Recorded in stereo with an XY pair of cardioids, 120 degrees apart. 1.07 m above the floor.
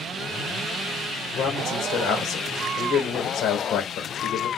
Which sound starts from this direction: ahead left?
A man speaking, at 1.4 s.